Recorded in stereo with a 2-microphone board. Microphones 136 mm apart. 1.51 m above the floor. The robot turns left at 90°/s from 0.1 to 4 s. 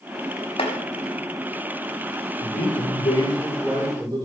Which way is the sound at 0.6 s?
45° left (ahead or behind).